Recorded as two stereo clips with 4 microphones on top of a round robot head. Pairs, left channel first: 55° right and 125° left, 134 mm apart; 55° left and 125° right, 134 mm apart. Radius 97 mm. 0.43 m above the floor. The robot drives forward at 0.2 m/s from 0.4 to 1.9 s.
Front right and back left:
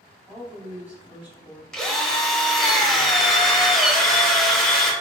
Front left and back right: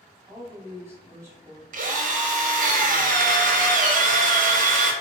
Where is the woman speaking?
160° right, 1.4 m; by 1.6 s 170° right, 1.5 m.